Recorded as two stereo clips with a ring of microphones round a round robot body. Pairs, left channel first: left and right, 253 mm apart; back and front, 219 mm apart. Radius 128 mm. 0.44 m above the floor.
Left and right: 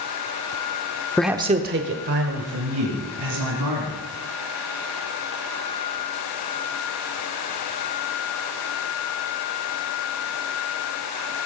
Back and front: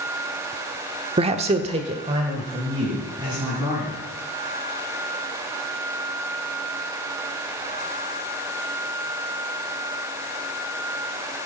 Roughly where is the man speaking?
Ahead.